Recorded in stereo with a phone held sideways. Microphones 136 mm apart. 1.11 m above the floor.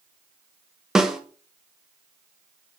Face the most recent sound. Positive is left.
turn(degrees=-5)  # may be behind; listen again after turning